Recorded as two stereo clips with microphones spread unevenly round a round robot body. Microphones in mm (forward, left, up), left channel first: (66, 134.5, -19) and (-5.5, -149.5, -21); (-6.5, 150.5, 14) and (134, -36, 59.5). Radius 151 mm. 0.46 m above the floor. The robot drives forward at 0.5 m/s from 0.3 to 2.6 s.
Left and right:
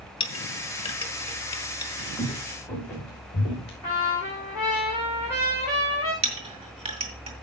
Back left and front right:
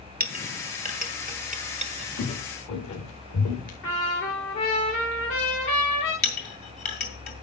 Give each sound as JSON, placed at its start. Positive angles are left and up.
{"t": 0.2, "sound": "a clink", "azimuth_deg": 5, "distance_m": 1.4}
{"t": 2.2, "sound": "footsteps", "azimuth_deg": 165, "distance_m": 4.0}
{"t": 3.8, "sound": "a trumpet", "azimuth_deg": 180, "distance_m": 8.0}
{"t": 6.2, "sound": "a clink", "azimuth_deg": -175, "distance_m": 1.9}